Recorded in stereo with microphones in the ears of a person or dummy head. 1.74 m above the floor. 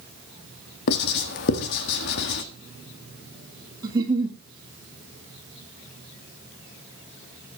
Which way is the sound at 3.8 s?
20° right (ahead or behind).